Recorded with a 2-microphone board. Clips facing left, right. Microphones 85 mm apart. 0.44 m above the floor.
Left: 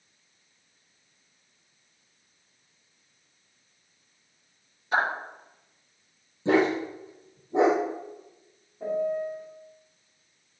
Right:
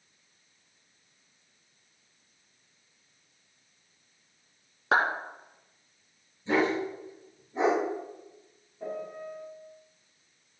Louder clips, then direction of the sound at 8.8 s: Left 9 dB; 15° left (ahead or behind).